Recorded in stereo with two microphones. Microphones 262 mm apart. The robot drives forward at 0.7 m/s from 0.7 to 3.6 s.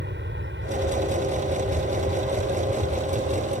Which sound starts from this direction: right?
An aircraft, at 0.0 s.